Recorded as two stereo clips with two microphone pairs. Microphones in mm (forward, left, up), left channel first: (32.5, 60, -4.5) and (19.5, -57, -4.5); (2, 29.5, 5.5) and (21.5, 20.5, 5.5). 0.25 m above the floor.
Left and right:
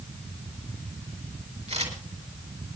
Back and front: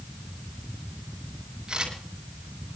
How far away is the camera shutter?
About 4.5 m.